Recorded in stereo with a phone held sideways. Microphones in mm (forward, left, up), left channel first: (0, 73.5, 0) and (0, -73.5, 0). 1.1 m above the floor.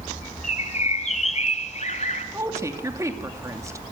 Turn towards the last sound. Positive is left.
turn(degrees=-20)  # may be behind; listen again after turning